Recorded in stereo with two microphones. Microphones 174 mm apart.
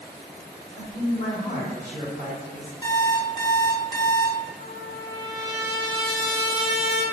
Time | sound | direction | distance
0.8 | a man speaking | 45° right (ahead or behind) | 1.4 m
2.8 | an alarm clock | 25° left (ahead or behind) | 0.6 m
4.6 | a trumpet | 35° left (ahead or behind) | 1.2 m